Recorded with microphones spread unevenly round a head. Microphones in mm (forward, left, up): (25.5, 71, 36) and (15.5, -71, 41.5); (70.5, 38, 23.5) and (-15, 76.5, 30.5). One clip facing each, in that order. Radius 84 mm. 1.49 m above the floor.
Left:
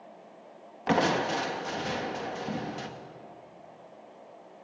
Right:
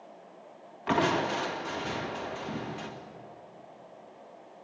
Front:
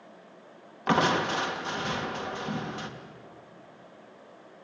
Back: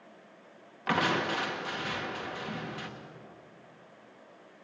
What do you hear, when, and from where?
0.9 s crushing: 40° left, 2.5 m